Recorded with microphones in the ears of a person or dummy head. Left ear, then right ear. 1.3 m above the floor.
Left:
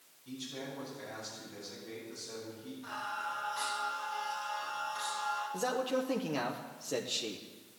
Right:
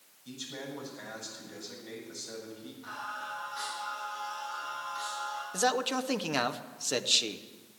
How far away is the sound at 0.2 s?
About 7.5 m.